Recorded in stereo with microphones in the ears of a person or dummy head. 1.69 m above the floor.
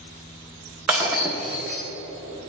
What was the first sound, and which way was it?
Breaking glass, 5° right (ahead or behind).